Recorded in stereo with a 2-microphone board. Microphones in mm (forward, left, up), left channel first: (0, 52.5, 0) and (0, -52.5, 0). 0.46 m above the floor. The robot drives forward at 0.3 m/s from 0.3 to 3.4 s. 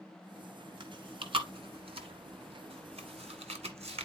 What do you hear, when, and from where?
0.8 s chewing: 50° right (ahead or behind), 1.6 m; by 4.0 s 80° right, 1.3 m